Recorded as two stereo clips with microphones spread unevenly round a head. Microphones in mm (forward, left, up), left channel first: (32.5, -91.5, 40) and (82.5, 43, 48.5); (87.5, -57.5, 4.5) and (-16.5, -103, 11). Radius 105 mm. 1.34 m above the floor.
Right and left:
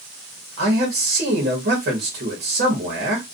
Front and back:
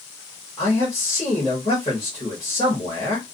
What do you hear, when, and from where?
0.6 s a man speaking: 100° left, 0.9 m